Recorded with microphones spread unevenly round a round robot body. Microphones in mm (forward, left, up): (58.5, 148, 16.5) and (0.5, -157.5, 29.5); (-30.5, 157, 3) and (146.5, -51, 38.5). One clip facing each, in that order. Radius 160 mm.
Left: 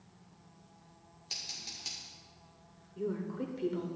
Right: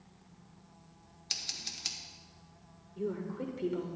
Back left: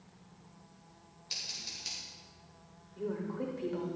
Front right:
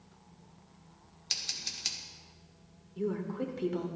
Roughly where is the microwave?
No microwave in this recording.